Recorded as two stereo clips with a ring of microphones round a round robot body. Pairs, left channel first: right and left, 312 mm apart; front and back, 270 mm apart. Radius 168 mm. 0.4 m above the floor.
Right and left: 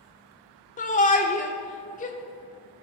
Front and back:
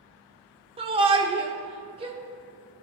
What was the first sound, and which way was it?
A shout, 130° right.